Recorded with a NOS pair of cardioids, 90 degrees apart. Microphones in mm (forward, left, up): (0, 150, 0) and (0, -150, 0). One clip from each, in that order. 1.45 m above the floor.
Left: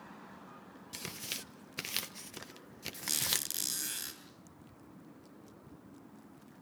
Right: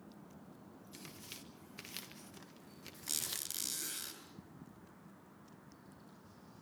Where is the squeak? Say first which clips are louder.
Left 7 dB; 25° left, 8.5 m.